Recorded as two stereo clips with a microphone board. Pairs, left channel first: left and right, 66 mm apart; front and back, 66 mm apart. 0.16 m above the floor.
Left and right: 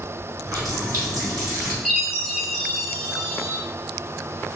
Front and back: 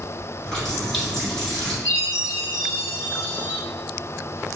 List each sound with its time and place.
0.4 s a running tap: 80° right, 1.8 m
1.9 s a chime: 165° right, 1.8 m